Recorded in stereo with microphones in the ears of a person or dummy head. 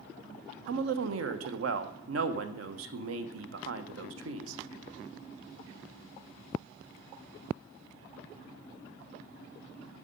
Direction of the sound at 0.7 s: 80° right.